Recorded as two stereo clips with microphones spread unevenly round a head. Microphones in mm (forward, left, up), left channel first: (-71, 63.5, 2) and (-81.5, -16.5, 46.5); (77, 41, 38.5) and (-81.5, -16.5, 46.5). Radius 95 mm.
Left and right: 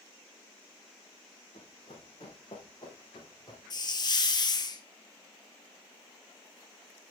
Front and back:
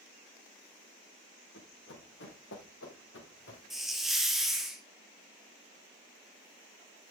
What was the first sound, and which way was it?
Running footsteps, 35° left.